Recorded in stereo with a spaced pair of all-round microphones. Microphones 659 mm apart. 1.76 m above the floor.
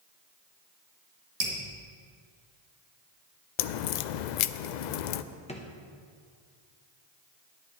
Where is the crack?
85° left, 0.5 m.